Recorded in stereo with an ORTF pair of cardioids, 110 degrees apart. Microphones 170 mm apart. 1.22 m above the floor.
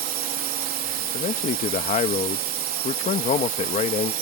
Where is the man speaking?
45° left.